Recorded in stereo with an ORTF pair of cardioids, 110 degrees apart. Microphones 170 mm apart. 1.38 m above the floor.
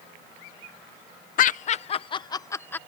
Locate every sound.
1.4 s laughter: 55° left; by 2.8 s 10° left